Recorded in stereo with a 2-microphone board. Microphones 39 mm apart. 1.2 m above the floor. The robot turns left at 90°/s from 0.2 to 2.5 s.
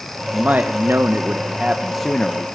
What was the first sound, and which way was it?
A man speaking, 30° right.